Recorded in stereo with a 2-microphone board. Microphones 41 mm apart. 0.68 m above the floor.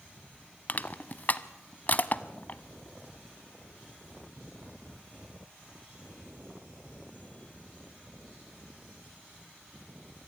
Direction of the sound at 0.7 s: 40° left (ahead or behind).